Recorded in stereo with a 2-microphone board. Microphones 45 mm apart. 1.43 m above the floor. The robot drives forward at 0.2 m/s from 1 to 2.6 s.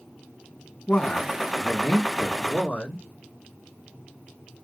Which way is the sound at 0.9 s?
30° left (ahead or behind).